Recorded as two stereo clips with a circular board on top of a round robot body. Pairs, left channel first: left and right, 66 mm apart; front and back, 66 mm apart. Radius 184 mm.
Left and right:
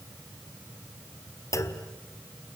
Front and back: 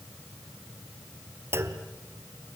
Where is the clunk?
130° left, 1.7 m.